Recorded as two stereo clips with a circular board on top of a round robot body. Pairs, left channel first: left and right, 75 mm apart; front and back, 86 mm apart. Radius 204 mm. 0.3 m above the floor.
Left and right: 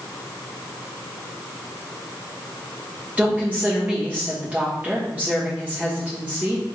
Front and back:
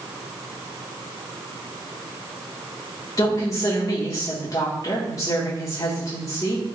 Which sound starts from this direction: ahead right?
A woman speaking, at 3.2 s.